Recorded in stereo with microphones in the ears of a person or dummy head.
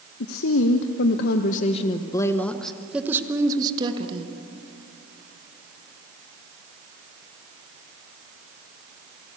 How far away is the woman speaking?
About 1.3 m.